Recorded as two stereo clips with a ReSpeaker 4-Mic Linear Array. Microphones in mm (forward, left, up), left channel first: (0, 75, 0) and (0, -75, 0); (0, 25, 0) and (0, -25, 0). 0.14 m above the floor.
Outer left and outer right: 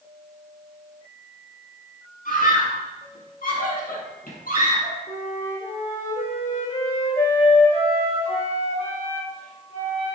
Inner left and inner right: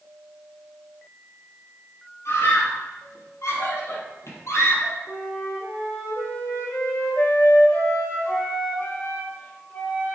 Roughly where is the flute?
Left.